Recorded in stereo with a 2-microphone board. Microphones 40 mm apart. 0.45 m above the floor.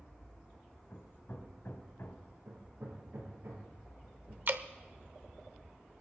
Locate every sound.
0.9 s hammering: 65° left (ahead or behind), 1.9 m
2.5 s hammering: 65° right (ahead or behind), 5.5 m
4.5 s dripping: 55° right (ahead or behind), 0.7 m